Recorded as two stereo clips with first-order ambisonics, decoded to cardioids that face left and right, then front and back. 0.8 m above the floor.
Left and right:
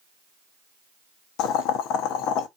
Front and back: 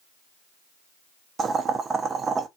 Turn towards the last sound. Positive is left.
turn(degrees=110)